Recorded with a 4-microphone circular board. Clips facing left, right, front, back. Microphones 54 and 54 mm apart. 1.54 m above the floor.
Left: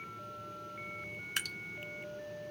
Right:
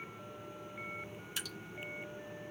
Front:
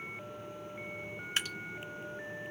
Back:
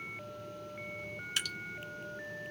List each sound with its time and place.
1.4 s dripping: 55° left, 0.7 m